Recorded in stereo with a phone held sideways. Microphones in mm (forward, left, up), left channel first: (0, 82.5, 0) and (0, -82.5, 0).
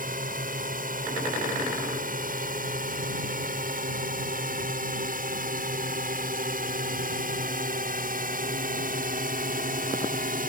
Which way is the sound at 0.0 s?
55° right (ahead or behind).